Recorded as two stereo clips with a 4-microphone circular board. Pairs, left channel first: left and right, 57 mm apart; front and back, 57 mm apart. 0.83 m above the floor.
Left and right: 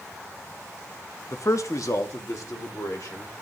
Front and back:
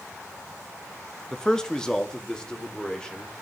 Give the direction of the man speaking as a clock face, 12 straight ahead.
9 o'clock.